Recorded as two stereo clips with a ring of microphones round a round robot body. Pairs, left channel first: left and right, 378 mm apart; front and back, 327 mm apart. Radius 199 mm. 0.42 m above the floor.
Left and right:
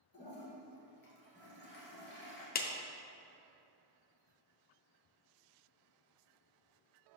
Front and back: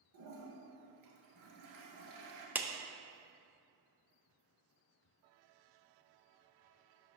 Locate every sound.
0.1 s a toilet flushing: 155° left, 1.7 m
2.5 s a clap: 105° left, 0.5 m